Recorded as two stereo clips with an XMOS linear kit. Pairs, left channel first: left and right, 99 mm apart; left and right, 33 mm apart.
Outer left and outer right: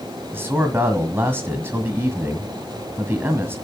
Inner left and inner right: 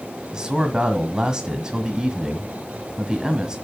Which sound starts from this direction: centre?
A man speaking, at 0.3 s.